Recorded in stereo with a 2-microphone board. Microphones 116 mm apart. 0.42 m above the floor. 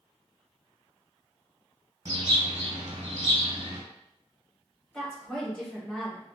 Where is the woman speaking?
5° left (ahead or behind), 1.9 m.